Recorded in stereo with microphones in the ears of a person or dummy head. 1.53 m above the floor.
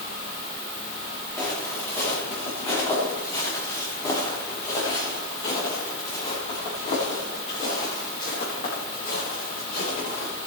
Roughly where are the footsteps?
Centre.